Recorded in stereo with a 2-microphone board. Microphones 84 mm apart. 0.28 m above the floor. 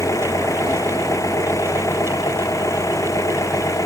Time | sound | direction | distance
0.0 | an engine running | 40° left (ahead or behind) | ?